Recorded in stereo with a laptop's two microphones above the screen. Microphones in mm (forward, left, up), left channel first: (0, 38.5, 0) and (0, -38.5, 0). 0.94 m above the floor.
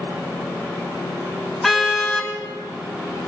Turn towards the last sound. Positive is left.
turn(degrees=0)  # may be behind; listen again after turning